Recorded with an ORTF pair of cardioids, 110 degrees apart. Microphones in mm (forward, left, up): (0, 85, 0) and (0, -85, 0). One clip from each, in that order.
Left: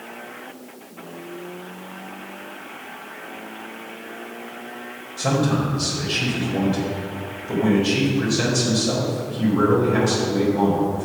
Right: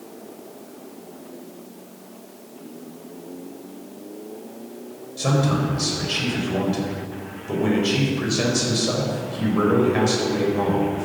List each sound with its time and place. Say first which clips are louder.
5.2 s a man speaking: left 1 dB; 15° right, 5.5 m